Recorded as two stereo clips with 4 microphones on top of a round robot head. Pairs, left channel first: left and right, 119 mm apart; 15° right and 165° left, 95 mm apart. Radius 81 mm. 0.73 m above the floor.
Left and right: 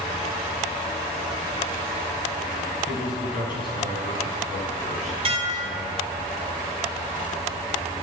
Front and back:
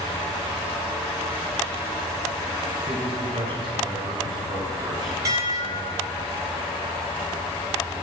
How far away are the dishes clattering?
About 1.7 m.